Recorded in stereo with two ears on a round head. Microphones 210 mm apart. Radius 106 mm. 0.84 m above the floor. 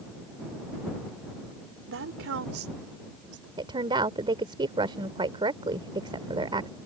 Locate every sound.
1.9 s a woman speaking: 65° right (ahead or behind); by 3.5 s 75° right (ahead or behind)
3.6 s a woman speaking: 25° right (ahead or behind)